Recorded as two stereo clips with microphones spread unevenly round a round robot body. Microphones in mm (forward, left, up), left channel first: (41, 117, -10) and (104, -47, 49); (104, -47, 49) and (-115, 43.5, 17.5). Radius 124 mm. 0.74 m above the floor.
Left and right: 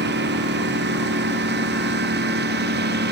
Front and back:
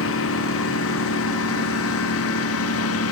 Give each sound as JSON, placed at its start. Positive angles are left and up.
{"t": 0.0, "sound": "a lawn mower", "azimuth_deg": -55}